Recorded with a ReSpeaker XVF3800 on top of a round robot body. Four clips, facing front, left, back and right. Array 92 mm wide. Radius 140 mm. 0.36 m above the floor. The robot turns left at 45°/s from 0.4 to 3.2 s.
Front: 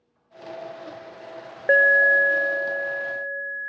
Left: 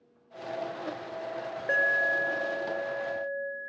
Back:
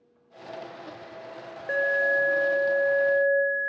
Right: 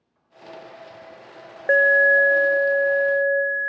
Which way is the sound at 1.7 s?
40° right.